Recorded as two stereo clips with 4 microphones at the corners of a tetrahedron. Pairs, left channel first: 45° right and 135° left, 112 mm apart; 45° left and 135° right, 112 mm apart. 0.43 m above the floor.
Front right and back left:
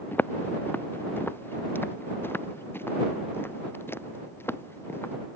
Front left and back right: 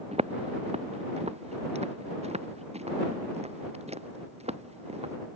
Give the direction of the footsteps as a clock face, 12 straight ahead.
4 o'clock.